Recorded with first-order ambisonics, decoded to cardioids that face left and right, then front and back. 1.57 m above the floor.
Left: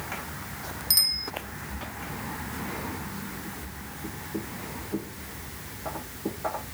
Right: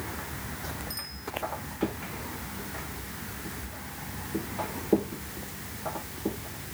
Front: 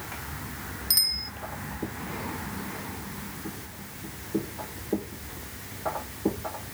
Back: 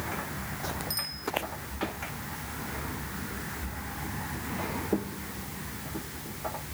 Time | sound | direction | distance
0.9 | a bicycle bell | 55° left | ?